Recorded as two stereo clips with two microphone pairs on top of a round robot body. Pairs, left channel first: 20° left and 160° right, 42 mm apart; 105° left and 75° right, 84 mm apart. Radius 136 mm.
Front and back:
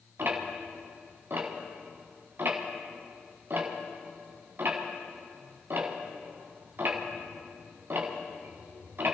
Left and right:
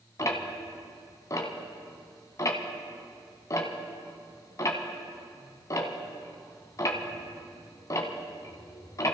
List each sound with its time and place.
0.2 s ticking: 160° left, 1.4 m